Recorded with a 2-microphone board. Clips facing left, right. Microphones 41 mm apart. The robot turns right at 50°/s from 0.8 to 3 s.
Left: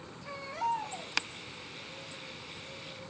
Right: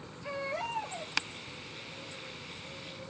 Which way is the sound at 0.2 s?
80° right.